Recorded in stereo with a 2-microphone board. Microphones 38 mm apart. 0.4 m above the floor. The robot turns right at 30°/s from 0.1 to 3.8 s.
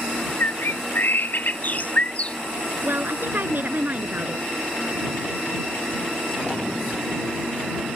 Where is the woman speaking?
75° right (ahead or behind); by 4.5 s 45° right (ahead or behind).